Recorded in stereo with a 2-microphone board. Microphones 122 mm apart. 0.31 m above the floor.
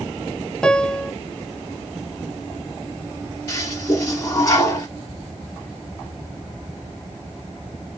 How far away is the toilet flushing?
About 1.4 m.